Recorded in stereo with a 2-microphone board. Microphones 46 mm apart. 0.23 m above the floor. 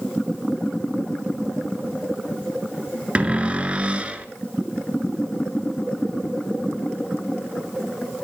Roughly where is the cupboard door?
Right.